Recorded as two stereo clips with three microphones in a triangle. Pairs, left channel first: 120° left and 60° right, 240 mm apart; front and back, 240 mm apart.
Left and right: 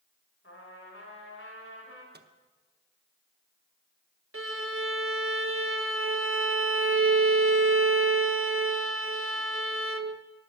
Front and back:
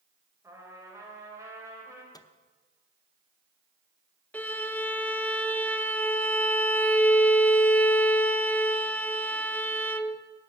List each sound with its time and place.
0.4 s a trumpet: 105° left, 3 m
2.1 s a microwave: 70° right, 0.7 m
4.3 s a violin: 85° right, 0.7 m